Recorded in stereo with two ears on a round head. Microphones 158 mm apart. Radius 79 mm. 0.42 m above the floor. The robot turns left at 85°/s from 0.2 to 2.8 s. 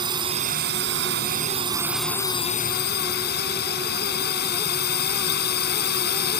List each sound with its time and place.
0.0 s a drone: 25° right; by 6.4 s 110° left